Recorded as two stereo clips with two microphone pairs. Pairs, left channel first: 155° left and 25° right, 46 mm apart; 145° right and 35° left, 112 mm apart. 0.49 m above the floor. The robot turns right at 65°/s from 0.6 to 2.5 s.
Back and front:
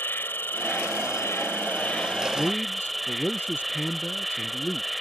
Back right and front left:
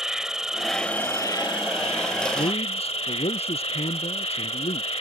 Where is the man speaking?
175° right; by 4.9 s 165° right.